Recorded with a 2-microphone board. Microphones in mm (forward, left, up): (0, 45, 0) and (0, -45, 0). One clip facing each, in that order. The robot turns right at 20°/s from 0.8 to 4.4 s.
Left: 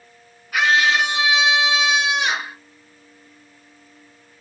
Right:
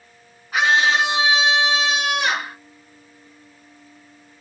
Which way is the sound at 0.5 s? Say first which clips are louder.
Even; 150° right.